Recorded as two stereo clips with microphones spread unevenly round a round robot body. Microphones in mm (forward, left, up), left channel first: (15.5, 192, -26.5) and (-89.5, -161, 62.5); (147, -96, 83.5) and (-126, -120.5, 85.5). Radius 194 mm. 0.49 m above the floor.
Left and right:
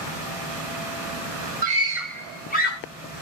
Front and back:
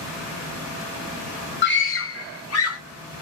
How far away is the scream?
About 1.1 m.